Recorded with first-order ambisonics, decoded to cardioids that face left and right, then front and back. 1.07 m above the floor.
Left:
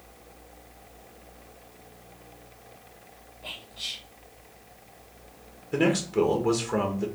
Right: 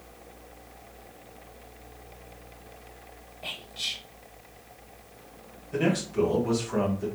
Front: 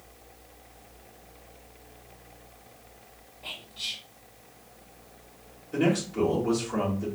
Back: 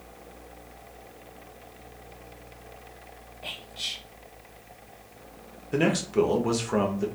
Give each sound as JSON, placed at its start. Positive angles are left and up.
{"t": 3.4, "sound": "whispering", "azimuth_deg": -125, "distance_m": 1.9}
{"t": 5.7, "sound": "a man speaking", "azimuth_deg": 150, "distance_m": 1.4}